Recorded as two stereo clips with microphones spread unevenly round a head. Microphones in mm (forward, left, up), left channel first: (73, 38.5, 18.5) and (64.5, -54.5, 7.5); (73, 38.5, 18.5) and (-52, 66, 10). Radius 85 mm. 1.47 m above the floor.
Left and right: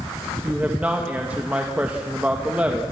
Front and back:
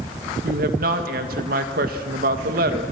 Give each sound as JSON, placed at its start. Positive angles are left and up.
{"t": 0.4, "sound": "a woman speaking", "azimuth_deg": 180, "distance_m": 1.9}